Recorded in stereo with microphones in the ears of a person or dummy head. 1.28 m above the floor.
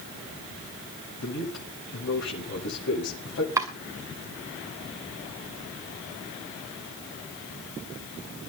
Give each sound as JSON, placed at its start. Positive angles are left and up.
{"t": 1.2, "sound": "a man speaking", "side_deg": 65, "distance_m": 5.0}
{"t": 3.6, "sound": "chopping", "side_deg": -20, "distance_m": 1.8}